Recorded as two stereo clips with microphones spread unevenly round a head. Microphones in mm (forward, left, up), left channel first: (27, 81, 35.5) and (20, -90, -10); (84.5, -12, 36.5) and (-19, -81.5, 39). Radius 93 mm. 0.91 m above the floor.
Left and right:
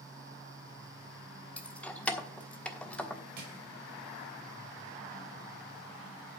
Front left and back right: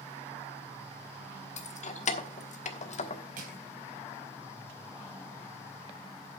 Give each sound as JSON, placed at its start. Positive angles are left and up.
{"t": 1.6, "sound": "keys jangling", "azimuth_deg": 5, "distance_m": 1.3}
{"t": 3.4, "sound": "crushing", "azimuth_deg": -135, "distance_m": 3.5}